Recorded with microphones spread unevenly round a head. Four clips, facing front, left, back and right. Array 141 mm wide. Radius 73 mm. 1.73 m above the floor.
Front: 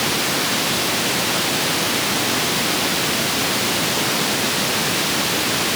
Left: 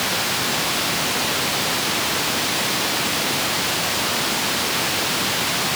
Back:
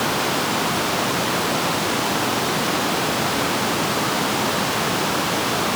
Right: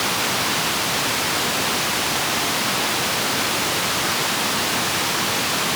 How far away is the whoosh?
No whoosh in this recording.